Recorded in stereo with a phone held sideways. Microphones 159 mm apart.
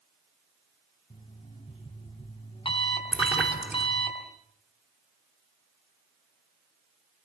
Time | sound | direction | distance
1.1 | an alarm clock | 35° left (ahead or behind) | 5 m
3.1 | a splash | 5° right (ahead or behind) | 3 m